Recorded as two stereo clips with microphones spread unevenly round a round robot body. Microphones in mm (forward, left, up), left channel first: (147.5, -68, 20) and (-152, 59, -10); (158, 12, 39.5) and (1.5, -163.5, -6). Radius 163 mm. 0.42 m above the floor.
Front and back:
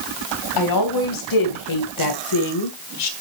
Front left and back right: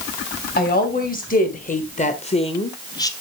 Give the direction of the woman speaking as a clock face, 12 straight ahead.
12 o'clock.